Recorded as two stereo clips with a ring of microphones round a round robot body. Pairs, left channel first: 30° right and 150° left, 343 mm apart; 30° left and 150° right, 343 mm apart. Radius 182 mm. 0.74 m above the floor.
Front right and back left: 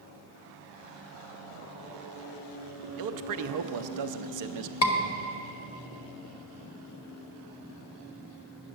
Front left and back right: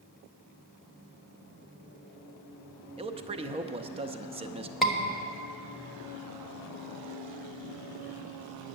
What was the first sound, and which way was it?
A man speaking, 140° left.